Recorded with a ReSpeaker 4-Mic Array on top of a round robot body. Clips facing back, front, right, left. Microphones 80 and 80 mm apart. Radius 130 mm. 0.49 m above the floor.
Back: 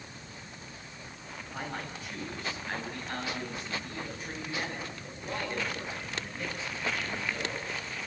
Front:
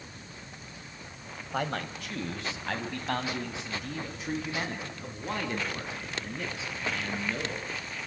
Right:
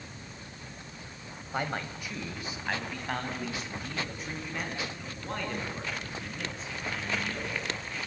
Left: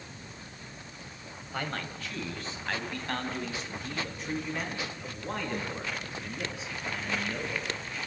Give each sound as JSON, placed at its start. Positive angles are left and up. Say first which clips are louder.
{"t": 1.5, "sound": "a man speaking", "louder": "front 7 dB, right 2 dB", "azimuth_deg": -20, "distance_m": 3.0}